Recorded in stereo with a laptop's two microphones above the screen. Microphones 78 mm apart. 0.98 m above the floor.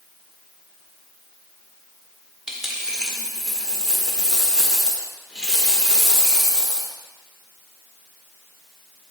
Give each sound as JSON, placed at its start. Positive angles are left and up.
{"t": 2.5, "sound": "a dropped coin", "side_deg": -5, "distance_m": 1.1}